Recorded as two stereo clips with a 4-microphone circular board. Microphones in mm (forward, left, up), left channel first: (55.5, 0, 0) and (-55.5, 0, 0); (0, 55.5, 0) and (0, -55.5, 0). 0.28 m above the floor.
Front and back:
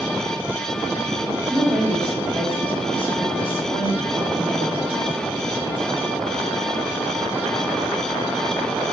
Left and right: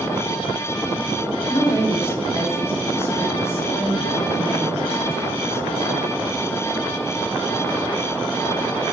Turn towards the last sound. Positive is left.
turn(degrees=25)